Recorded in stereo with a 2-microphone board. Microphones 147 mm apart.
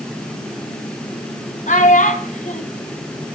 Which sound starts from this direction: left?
A child speaking, at 1.7 s.